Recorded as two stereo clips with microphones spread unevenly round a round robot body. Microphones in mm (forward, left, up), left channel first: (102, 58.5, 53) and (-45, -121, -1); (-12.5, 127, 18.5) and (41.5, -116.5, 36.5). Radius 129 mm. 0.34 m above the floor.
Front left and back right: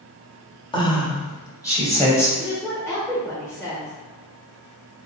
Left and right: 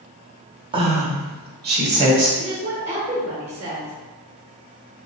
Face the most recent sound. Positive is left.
turn(degrees=-45)